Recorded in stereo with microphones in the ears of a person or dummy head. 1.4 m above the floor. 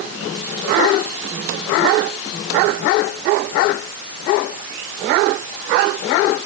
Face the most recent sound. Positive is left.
No sound to turn to.